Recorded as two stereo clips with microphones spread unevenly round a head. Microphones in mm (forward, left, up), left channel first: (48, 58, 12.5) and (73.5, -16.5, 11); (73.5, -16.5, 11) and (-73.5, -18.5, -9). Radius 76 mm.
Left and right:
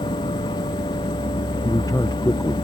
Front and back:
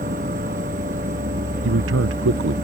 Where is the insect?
145° left.